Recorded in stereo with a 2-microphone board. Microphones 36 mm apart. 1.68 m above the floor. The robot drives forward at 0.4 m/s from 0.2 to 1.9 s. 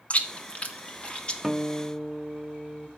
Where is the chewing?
40° left (ahead or behind), 1.1 m; by 1.3 s 30° left (ahead or behind), 1.3 m.